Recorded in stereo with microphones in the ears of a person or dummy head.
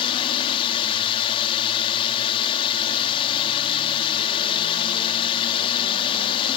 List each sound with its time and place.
0.0 s a drone: 25° left (ahead or behind)